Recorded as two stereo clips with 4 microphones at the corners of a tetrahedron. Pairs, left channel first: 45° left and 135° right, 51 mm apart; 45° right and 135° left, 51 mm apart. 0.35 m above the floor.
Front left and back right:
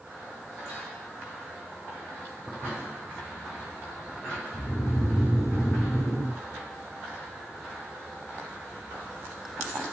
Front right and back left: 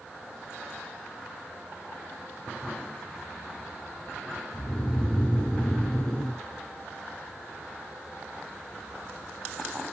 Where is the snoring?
30° left, 2.5 m.